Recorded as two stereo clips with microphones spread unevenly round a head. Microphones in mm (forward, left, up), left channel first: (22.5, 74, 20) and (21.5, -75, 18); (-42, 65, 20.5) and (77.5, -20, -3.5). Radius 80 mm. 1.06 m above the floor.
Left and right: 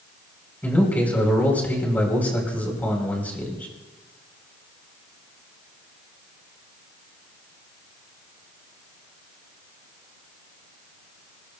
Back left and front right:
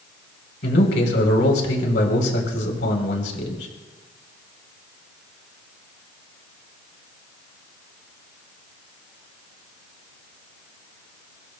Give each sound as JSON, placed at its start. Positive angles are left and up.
{"t": 0.6, "sound": "a man speaking", "azimuth_deg": 170, "distance_m": 4.0}